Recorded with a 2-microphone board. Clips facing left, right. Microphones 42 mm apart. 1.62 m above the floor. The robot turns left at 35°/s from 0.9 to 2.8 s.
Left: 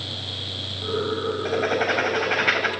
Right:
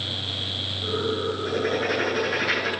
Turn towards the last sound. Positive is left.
turn(degrees=50)